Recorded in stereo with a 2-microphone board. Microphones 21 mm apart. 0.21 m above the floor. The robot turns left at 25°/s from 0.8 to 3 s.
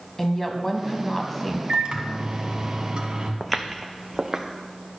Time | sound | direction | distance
0.2 | a woman speaking | 15° left (ahead or behind) | 1.2 m
1.7 | a microwave | 90° right | 1.2 m
3.4 | footsteps | centre (ahead or behind) | 0.7 m